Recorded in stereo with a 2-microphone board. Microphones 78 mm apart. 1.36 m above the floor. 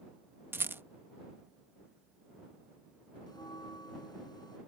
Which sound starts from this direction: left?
A bell, at 3.3 s.